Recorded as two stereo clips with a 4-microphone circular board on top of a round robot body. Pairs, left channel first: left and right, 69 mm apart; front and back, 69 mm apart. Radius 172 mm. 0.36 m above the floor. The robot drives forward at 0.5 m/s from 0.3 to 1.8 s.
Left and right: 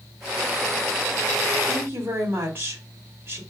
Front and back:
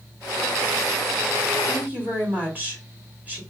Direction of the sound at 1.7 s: 125° right.